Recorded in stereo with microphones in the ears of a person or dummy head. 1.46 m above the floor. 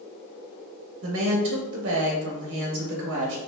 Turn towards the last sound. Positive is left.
turn(degrees=-70)  # may be behind; listen again after turning